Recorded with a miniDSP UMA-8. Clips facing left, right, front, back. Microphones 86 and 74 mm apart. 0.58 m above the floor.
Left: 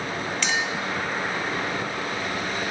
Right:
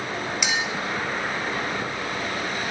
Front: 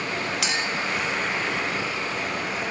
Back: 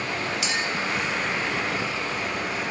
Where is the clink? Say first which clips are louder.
Left 1 dB, even; 15° right, 1.0 m.